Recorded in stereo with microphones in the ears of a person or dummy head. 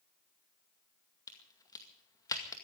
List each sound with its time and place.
1.3 s a crack: 20° left (ahead or behind), 2 m